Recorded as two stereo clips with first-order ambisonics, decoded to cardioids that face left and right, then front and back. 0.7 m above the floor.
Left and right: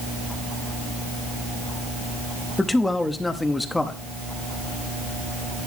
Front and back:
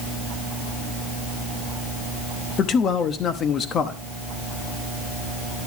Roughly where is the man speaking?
Ahead.